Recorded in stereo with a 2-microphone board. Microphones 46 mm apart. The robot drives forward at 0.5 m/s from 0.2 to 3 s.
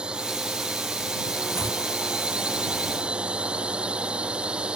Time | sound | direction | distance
0.0 | a drone | 25° right (ahead or behind) | ?
1.5 | chopping | 65° left (ahead or behind) | ?